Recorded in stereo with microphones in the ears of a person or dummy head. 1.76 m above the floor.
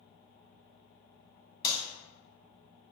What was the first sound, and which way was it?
A clap, 20° left (ahead or behind).